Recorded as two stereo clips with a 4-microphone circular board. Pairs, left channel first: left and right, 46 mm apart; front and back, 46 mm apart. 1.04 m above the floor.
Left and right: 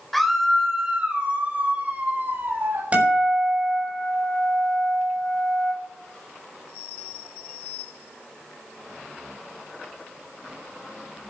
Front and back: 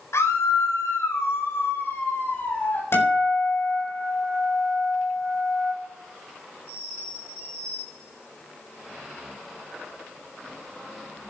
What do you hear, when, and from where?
0.1 s a scream: 5° left, 3.5 m; by 2.8 s 50° right, 5.5 m
2.9 s a guitar: 30° right, 7 m